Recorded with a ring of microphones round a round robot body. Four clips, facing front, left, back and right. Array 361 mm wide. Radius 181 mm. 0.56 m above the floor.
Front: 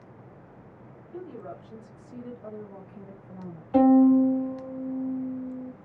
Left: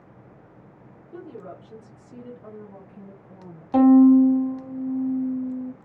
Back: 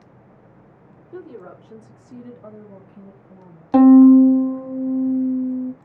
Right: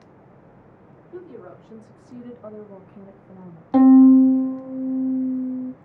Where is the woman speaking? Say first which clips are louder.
Even, back 3 dB; straight behind, 1.0 m; by 3.6 s 55° right, 1.0 m.